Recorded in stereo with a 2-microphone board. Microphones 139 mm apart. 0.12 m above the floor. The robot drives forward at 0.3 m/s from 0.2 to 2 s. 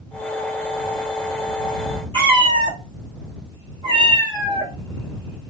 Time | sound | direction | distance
2.1 | a cat meowing | 35° right (ahead or behind) | 0.8 m